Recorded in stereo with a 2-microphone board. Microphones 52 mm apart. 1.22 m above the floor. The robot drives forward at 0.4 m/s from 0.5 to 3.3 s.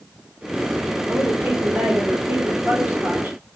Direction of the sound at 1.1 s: 50° right (ahead or behind).